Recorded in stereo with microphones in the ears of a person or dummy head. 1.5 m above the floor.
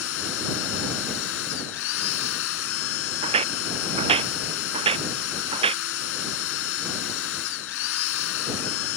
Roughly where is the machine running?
Left.